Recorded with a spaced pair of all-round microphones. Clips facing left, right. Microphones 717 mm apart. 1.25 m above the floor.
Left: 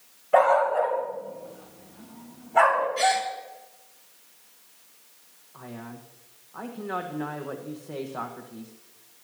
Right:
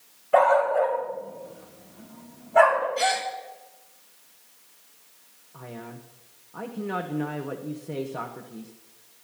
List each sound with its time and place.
0.3 s a dog barking: centre (ahead or behind), 3 m; by 2.9 s 15° right (ahead or behind), 4 m
3.0 s a gasp: 30° left (ahead or behind), 1.8 m
5.5 s a man speaking: 60° right (ahead or behind), 1.3 m